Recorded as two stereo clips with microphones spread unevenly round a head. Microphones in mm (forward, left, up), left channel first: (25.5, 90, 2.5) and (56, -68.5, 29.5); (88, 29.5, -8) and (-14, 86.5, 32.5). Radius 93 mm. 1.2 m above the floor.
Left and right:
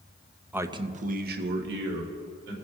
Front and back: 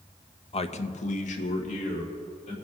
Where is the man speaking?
5° left, 0.8 m; by 2.5 s 80° right, 2.5 m.